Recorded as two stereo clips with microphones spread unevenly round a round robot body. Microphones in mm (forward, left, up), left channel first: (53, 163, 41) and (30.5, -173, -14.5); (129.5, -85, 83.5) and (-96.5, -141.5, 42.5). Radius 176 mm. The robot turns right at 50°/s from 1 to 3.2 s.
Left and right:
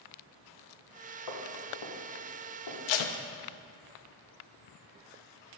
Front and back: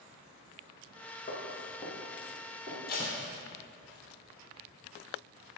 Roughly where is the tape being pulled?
Left.